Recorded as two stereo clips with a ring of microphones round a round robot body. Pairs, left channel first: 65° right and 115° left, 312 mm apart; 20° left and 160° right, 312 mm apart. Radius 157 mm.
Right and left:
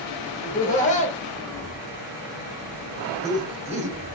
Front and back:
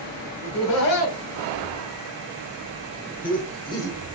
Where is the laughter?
5° right, 2.5 m; by 4.0 s 95° left, 1.2 m.